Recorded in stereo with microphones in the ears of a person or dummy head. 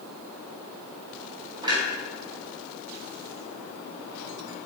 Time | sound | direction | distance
1.6 | a clunk | 25° right (ahead or behind) | 4.5 m